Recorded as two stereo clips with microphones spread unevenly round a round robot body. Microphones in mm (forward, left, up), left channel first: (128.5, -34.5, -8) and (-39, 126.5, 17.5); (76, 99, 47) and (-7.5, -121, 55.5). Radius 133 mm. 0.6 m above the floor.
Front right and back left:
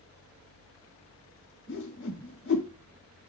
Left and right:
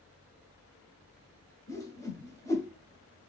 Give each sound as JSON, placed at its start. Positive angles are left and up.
{"t": 1.7, "sound": "a whoosh", "azimuth_deg": -10, "distance_m": 1.4}